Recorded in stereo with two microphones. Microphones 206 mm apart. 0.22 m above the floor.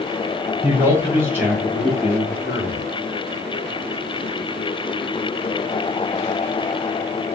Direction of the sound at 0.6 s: 10° right (ahead or behind).